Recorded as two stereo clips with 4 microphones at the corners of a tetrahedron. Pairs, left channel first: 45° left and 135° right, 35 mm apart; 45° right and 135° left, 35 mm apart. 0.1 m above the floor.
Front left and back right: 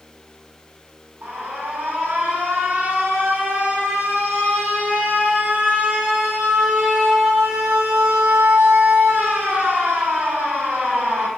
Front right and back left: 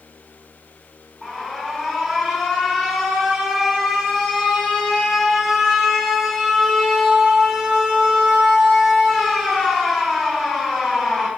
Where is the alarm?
135° right, 3.5 m.